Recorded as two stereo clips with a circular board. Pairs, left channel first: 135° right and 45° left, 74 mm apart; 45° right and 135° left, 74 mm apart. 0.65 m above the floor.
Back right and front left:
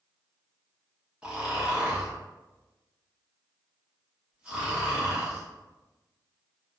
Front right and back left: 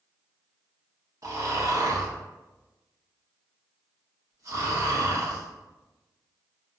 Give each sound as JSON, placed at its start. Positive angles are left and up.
{"t": 1.2, "sound": "snoring", "azimuth_deg": 115, "distance_m": 0.9}